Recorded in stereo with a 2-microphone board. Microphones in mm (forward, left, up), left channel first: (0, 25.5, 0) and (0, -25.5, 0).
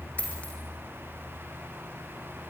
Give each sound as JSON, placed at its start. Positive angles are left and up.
{"t": 0.2, "sound": "a dropped coin", "side_deg": 25, "distance_m": 3.5}